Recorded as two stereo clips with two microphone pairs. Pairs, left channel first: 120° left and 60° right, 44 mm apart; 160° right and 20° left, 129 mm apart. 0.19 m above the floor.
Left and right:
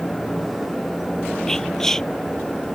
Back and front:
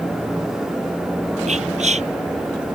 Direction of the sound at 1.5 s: 40° left.